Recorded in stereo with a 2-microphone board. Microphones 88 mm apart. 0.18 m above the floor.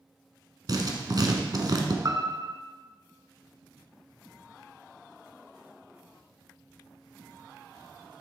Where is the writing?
50° right (ahead or behind), 1.2 m.